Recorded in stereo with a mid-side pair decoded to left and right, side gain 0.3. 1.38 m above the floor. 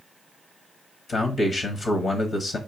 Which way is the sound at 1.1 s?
70° left.